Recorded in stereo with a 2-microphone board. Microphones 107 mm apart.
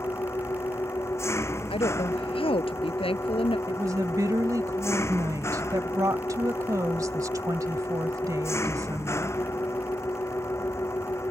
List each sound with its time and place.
0.0 s an engine running: 25° left (ahead or behind)
1.7 s a woman speaking: 60° left (ahead or behind)
3.7 s a woman speaking: 35° right (ahead or behind)